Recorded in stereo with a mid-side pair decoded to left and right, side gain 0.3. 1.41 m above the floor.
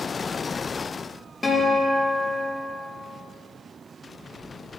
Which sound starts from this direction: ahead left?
A guitar, at 1.4 s.